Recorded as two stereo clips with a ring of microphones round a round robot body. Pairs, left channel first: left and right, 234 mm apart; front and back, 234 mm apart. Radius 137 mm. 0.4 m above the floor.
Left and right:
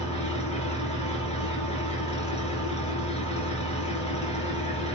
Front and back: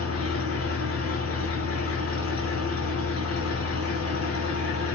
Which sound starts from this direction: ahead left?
An engine running, at 0.0 s.